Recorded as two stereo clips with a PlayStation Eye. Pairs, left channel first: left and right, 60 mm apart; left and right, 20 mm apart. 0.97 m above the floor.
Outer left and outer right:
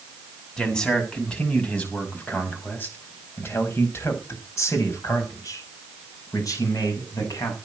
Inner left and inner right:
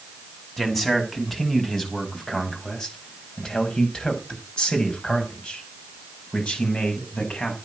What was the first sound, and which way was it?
A man speaking, 10° left (ahead or behind).